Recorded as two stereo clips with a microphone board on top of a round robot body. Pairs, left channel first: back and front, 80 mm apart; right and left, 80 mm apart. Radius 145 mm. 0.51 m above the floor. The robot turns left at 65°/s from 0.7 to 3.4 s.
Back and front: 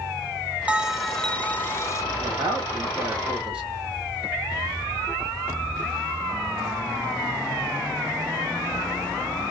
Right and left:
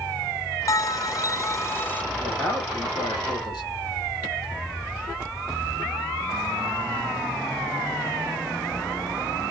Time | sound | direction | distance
0.7 | a bell | 65° right | 0.5 m
2.2 | a man speaking | straight ahead | 1.8 m